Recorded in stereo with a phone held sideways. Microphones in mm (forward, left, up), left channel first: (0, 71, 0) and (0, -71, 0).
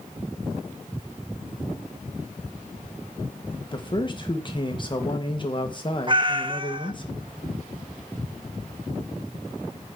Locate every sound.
3.7 s a man speaking: 35° left (ahead or behind), 1.8 m
6.1 s a cat meowing: 35° right (ahead or behind), 1.0 m